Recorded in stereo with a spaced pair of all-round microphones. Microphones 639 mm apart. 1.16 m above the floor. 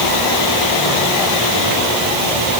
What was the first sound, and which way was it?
Only background noise.